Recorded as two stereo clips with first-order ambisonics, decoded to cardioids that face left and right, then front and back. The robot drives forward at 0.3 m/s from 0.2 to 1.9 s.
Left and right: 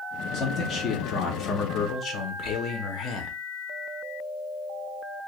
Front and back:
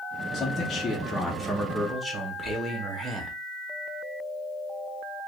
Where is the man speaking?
40° left, 0.7 m; by 3.4 s 105° left, 0.6 m.